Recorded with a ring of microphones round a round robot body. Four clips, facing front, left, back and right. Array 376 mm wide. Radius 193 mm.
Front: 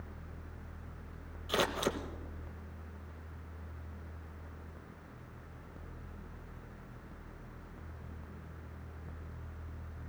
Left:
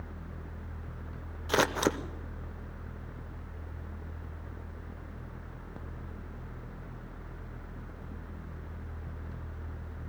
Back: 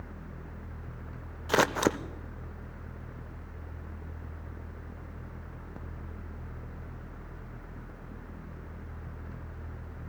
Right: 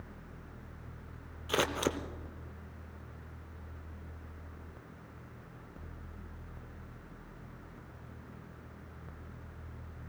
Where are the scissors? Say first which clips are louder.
Left 4 dB, back 7 dB; 160° left, 0.7 m.